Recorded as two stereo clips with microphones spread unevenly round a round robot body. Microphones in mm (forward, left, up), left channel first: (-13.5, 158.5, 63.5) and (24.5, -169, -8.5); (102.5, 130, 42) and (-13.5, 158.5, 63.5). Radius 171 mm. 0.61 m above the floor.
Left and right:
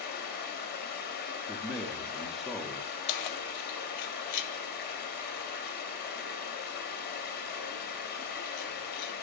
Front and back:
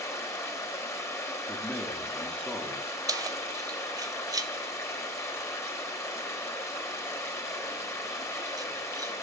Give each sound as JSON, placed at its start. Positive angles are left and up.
{"t": 0.0, "sound": "running water", "azimuth_deg": 30, "distance_m": 0.9}
{"t": 1.5, "sound": "a man speaking", "azimuth_deg": -35, "distance_m": 0.5}
{"t": 3.1, "sound": "keys jangling", "azimuth_deg": 95, "distance_m": 0.5}